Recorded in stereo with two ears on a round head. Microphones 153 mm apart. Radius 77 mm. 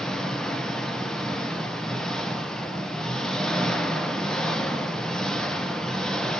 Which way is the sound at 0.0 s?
5° left (ahead or behind).